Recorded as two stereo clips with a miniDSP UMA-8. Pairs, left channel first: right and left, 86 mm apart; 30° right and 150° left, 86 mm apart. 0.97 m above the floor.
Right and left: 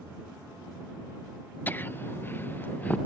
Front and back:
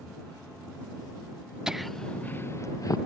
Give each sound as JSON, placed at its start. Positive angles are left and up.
{"t": 1.7, "sound": "laughter", "azimuth_deg": -130}